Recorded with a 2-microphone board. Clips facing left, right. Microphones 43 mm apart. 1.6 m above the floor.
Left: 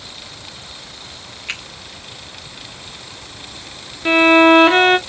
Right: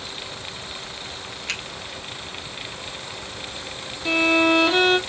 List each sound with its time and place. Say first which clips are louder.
1.5 s a finger snap: left 2 dB; 25° left (ahead or behind), 2.5 m
4.0 s a violin: left 8 dB; 45° left (ahead or behind), 0.7 m